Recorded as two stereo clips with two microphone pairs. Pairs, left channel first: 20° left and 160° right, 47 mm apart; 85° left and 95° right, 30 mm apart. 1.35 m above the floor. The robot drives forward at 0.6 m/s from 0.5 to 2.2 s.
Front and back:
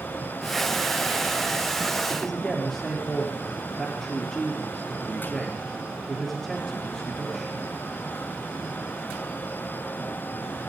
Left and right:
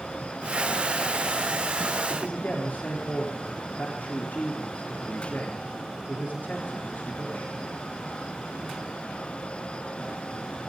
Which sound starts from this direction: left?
A man speaking, at 2.1 s.